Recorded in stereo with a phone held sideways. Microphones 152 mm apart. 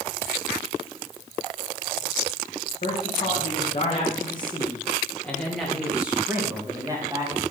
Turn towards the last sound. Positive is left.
turn(degrees=-30)  # may be behind; listen again after turning